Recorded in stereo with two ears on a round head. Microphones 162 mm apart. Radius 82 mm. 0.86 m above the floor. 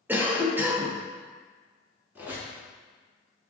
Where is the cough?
10° right (ahead or behind), 0.5 m.